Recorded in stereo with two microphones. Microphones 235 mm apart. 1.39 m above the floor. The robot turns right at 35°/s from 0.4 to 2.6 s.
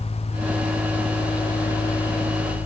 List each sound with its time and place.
Only background noise.